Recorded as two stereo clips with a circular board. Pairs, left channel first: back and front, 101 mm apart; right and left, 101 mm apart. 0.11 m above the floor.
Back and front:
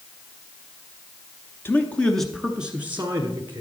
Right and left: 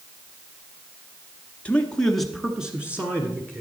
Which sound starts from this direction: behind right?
A man speaking, at 1.6 s.